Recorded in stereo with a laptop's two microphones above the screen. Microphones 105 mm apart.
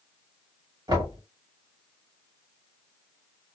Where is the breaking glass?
I don't hear breaking glass.